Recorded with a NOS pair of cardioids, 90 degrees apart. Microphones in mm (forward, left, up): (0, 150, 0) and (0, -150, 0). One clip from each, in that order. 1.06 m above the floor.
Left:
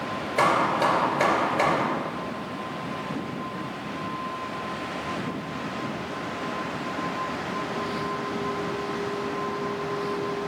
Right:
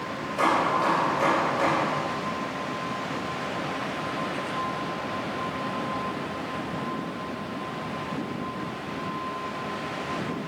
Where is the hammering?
65° left, 3 m.